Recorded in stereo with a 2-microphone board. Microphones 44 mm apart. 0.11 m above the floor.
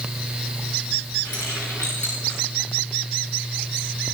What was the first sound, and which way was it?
Keys jangling, 85° left.